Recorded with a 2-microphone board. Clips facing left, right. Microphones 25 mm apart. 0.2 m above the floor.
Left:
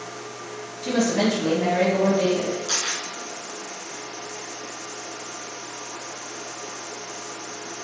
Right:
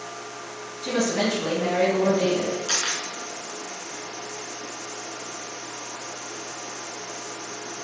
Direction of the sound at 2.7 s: 70° right (ahead or behind).